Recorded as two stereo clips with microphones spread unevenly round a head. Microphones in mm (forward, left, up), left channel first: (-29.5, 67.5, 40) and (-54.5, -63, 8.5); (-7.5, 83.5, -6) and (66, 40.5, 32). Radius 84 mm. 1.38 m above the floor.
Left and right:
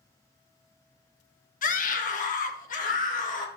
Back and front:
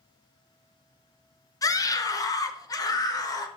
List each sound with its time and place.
1.6 s a scream: 100° left, 1.4 m